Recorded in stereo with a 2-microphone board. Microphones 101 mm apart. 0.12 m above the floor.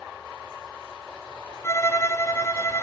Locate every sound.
1.6 s a violin: 30° left (ahead or behind), 1.2 m